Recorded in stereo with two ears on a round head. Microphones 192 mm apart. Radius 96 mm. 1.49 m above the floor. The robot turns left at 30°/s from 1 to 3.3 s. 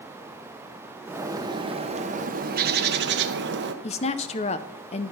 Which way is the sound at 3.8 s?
30° left (ahead or behind).